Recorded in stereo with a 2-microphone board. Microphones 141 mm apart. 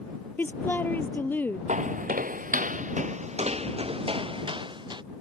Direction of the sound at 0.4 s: 15° left (ahead or behind).